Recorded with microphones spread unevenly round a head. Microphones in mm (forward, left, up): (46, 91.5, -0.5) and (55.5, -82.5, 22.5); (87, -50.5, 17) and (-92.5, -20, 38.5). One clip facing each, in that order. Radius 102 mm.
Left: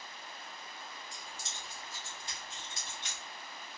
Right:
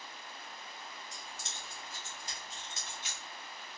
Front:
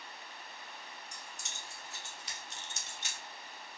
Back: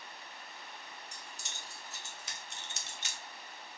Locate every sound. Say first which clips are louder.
1.1 s keys jangling: even, even; 130° right, 1.6 m; by 3.2 s straight behind, 0.5 m